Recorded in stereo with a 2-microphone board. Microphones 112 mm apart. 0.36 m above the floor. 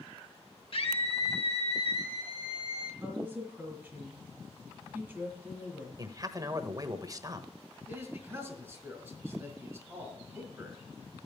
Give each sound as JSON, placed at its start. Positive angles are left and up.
{"t": 0.7, "sound": "a scream", "side_deg": 60, "distance_m": 2.5}
{"t": 3.0, "sound": "a woman speaking", "side_deg": -10, "distance_m": 5.5}
{"t": 6.0, "sound": "a man speaking", "side_deg": -35, "distance_m": 1.1}
{"t": 7.9, "sound": "a man speaking", "side_deg": -15, "distance_m": 4.0}